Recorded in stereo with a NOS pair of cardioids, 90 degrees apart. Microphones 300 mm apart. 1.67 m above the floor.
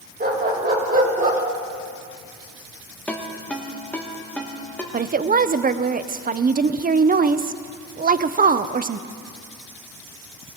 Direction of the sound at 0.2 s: 30° right.